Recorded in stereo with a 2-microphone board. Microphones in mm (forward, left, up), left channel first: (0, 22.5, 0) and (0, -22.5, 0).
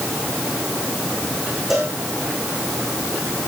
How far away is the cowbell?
About 8 m.